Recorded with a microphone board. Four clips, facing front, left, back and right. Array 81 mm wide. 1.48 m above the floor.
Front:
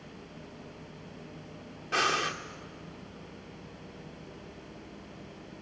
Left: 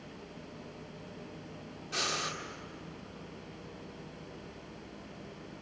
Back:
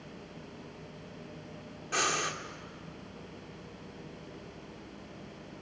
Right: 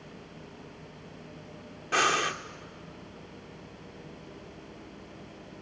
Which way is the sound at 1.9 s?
75° right.